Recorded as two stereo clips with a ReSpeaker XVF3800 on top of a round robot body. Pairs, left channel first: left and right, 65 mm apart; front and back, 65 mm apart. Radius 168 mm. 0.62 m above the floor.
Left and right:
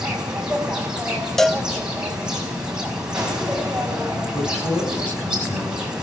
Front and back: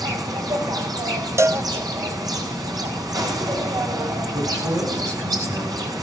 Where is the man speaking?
155° left, 8 m.